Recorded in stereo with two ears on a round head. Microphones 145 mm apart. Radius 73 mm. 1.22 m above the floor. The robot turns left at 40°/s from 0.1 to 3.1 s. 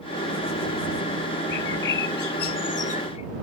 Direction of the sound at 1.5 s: 105° left.